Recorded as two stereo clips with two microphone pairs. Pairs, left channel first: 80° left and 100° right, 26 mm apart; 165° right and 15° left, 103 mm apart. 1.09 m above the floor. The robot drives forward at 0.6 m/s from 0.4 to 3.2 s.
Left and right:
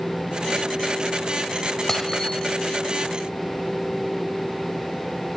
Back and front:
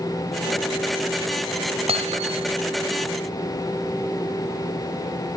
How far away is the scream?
I don't hear a scream.